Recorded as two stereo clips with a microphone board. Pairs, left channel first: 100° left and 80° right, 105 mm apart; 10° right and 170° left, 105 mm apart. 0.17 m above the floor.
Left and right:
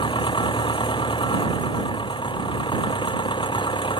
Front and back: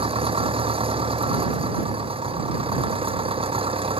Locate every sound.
0.0 s an engine running: 140° left